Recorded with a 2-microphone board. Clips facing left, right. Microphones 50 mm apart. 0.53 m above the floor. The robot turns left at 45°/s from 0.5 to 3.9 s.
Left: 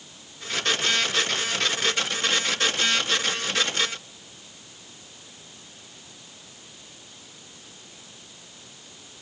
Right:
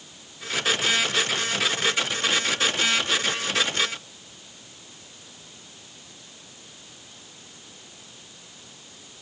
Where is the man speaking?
No man speaking in this recording.